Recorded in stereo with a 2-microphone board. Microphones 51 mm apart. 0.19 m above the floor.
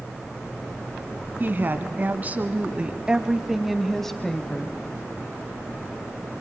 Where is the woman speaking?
40° right (ahead or behind), 1.5 m; by 4.8 s 20° left (ahead or behind), 1.2 m.